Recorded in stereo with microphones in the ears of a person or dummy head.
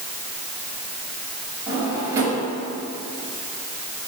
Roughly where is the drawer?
Centre.